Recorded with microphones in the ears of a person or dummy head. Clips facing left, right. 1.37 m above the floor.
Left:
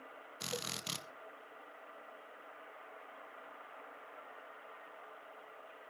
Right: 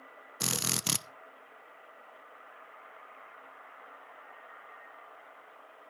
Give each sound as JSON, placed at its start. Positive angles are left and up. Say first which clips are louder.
{"t": 0.4, "sound": "a drill", "louder": "right 6 dB", "side_deg": -70, "distance_m": 0.7}